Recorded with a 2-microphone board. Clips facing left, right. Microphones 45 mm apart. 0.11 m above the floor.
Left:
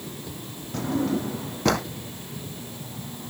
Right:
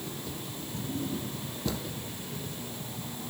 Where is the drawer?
75° left (ahead or behind).